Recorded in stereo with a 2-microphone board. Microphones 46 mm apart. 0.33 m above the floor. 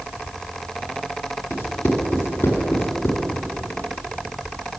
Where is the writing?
55° left (ahead or behind), 2 m.